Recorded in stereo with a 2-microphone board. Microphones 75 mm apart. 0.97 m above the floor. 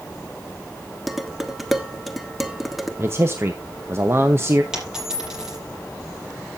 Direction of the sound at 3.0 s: 35° right (ahead or behind).